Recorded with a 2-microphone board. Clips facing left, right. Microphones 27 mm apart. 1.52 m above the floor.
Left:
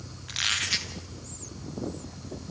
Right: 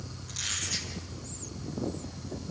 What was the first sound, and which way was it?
A squeak, 55° left (ahead or behind).